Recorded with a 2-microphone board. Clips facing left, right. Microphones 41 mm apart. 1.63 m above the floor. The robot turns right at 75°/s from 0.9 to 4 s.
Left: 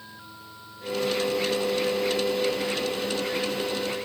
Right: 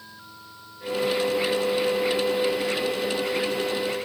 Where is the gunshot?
No gunshot in this recording.